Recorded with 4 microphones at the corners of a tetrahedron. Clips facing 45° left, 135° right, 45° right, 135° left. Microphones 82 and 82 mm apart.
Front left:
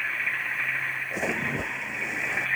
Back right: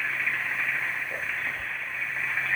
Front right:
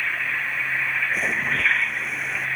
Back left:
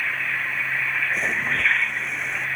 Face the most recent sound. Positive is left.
turn(degrees=45)